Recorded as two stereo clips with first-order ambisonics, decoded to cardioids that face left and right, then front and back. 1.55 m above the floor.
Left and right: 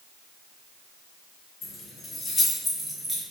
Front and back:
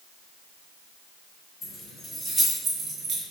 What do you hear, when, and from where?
1.6 s keys jangling: 45° left, 0.7 m; by 3.2 s 165° right, 0.7 m